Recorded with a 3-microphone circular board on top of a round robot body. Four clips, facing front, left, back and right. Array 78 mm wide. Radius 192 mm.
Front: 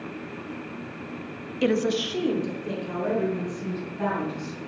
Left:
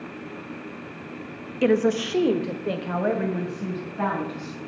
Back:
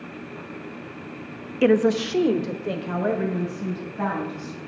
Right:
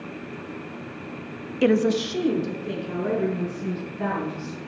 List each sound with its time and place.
1.6 s a woman speaking: 170° right, 0.9 m; by 4.6 s 120° left, 4.5 m